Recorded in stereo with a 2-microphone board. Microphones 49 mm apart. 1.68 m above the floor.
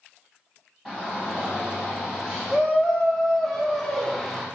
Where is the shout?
5° right (ahead or behind), 1.5 m; by 4.5 s 5° left (ahead or behind), 0.8 m.